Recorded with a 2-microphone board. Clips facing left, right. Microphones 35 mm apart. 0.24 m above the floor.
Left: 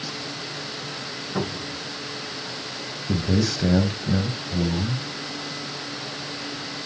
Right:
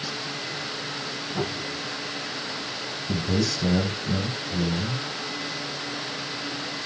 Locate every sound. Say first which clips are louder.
1.4 s a cupboard door: left 2 dB; 75° left (ahead or behind), 7 m
3.1 s a man speaking: left 2 dB; 20° left (ahead or behind), 1.4 m